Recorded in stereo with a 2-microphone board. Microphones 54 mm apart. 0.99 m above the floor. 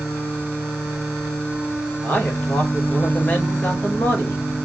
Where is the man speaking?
25° left (ahead or behind), 2.5 m.